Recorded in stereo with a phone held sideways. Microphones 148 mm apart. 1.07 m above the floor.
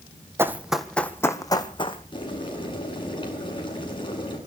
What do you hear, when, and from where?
0.4 s running footsteps: 15° right (ahead or behind), 1.8 m; by 2.0 s 35° left (ahead or behind), 2.5 m
2.1 s boiling: 35° left (ahead or behind), 8.5 m